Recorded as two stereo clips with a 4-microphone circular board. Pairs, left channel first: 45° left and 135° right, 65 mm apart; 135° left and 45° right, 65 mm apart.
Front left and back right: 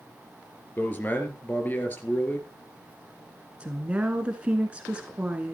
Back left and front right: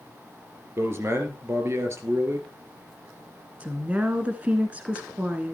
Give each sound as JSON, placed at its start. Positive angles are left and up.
{"t": 0.8, "sound": "a man speaking", "azimuth_deg": -10, "distance_m": 2.5}
{"t": 3.6, "sound": "a woman speaking", "azimuth_deg": -85, "distance_m": 1.2}